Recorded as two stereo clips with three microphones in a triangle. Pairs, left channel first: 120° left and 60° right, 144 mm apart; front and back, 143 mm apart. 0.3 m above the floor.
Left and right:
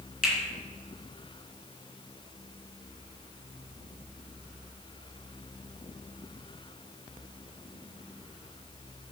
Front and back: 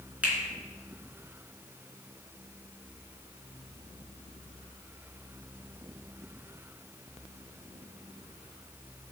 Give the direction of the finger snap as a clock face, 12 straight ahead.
9 o'clock.